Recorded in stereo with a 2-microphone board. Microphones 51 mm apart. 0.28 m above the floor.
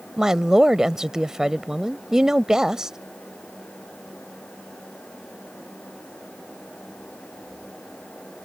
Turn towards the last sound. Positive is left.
turn(degrees=-10)  # may be behind; listen again after turning